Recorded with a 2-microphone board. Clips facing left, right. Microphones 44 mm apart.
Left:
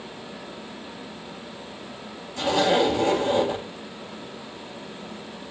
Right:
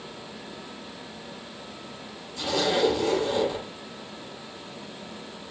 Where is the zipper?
50° left (ahead or behind), 5.5 m.